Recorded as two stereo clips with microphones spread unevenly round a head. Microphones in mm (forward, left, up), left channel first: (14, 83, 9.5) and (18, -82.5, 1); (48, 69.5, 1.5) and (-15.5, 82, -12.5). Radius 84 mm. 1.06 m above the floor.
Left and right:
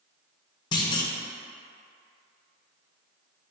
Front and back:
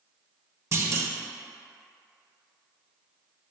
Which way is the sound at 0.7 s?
155° left.